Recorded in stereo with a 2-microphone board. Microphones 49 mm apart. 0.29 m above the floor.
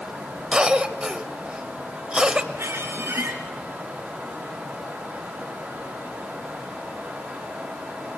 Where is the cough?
20° right (ahead or behind), 1.0 m.